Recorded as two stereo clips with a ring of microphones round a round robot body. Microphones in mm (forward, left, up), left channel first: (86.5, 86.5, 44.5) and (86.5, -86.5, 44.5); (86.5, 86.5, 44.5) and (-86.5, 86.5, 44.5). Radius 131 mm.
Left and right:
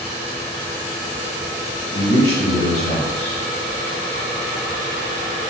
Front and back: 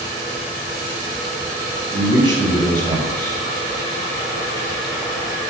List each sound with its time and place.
1.9 s a man speaking: 130° left, 2.5 m